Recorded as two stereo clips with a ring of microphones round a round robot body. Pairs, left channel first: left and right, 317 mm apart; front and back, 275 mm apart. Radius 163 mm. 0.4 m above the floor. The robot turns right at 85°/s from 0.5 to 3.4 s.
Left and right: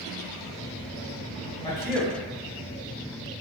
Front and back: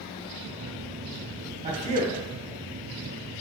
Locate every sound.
1.6 s a man speaking: 145° left, 0.9 m; by 2.2 s 165° right, 0.9 m